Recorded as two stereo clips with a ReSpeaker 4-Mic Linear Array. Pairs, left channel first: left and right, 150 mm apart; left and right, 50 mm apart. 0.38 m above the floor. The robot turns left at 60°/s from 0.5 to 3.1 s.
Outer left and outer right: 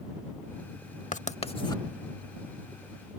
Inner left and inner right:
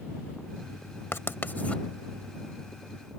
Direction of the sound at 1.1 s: 60° left (ahead or behind).